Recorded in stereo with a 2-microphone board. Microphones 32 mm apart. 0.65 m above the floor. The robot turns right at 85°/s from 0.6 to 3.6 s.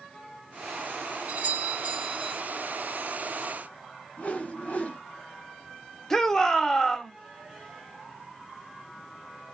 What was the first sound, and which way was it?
A doorbell, 120° right.